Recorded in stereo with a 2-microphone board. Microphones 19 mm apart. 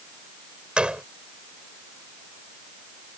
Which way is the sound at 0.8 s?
80° right.